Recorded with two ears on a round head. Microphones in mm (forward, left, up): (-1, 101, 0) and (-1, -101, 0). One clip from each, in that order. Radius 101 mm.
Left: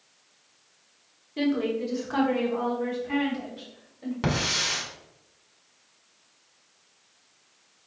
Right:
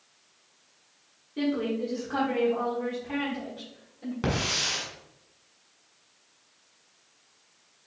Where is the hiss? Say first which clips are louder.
Left 1 dB; 15° left (ahead or behind), 1.5 m.